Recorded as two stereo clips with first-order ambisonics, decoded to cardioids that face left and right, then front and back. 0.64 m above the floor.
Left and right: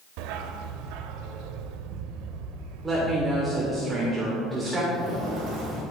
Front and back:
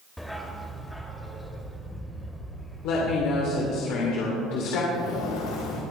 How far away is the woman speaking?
About 2 m.